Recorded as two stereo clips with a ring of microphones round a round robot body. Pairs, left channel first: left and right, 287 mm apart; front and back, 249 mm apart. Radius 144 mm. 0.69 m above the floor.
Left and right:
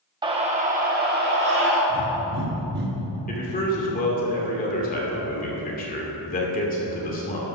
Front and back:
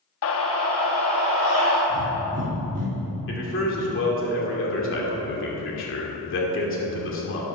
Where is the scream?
20° right, 0.8 m; by 1.8 s 40° right, 1.4 m.